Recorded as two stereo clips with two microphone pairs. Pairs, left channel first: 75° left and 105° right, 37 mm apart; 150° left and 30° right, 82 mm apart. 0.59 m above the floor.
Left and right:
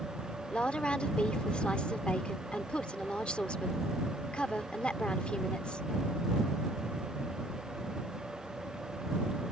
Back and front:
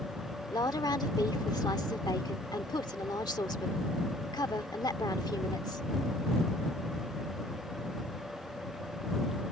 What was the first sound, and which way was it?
A woman speaking, 130° left.